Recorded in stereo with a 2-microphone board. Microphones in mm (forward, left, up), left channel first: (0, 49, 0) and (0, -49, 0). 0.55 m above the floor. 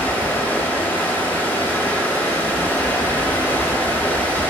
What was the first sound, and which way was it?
Running water, 20° left (ahead or behind).